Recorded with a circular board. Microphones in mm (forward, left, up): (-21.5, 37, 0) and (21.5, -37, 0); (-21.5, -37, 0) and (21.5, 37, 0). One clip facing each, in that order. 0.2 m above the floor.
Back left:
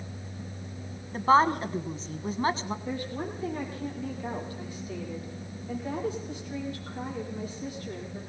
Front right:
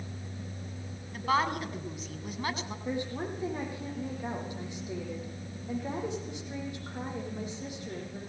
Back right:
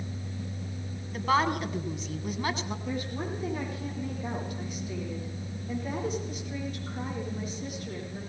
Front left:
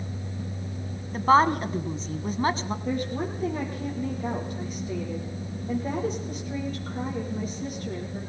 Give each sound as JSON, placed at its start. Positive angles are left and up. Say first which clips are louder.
{"t": 1.1, "sound": "a woman speaking", "louder": "back left 7 dB, front left 7 dB", "azimuth_deg": 90, "distance_m": 1.3}
{"t": 2.9, "sound": "a woman speaking", "louder": "front right 4 dB, front left 6 dB", "azimuth_deg": 10, "distance_m": 8.5}